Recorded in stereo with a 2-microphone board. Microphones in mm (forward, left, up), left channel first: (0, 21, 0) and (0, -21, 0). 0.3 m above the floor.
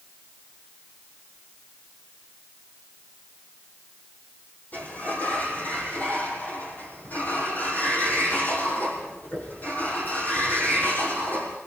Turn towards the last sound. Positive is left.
turn(degrees=40)  # may be behind; listen again after turning